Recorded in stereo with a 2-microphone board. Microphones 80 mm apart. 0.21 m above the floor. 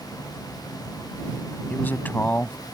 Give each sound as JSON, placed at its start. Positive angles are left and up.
{"t": 1.7, "sound": "a man speaking", "side_deg": 25}